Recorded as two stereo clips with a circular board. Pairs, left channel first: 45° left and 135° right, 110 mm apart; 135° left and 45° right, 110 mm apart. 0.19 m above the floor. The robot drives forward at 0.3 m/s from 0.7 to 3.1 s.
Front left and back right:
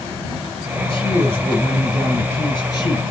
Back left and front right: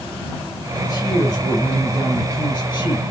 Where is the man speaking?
85° left, 3.5 m; by 3.0 s 95° left, 3.5 m.